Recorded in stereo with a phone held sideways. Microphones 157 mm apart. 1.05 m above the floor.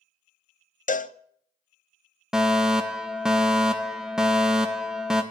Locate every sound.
0.9 s a cowbell: 55° left (ahead or behind), 0.5 m
2.3 s a fire alarm: 5° right (ahead or behind), 1.1 m